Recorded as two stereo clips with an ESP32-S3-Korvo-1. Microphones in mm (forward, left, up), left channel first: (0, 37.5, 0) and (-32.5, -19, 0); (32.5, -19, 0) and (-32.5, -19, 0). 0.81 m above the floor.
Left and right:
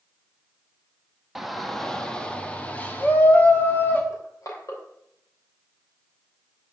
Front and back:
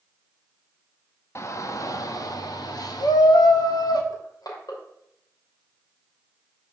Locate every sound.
1.4 s a shout: 35° right, 1.1 m; by 4.0 s straight ahead, 2 m
4.1 s crushing: 25° left, 3 m